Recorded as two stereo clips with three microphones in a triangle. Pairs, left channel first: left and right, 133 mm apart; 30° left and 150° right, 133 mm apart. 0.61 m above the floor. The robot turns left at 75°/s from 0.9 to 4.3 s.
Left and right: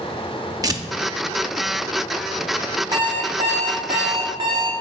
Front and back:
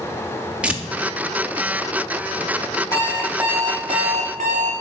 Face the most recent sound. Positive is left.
turn(degrees=-140)